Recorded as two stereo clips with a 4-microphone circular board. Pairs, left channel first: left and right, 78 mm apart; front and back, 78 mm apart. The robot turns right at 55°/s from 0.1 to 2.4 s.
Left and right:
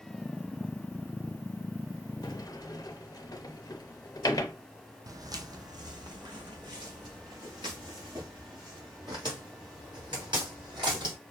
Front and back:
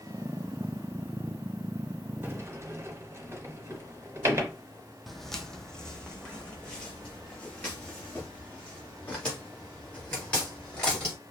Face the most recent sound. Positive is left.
turn(degrees=-70)